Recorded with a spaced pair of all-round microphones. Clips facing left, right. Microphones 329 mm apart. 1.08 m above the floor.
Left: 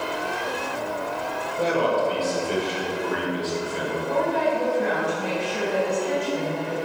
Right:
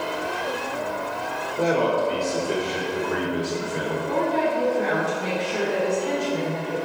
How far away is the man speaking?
About 3 m.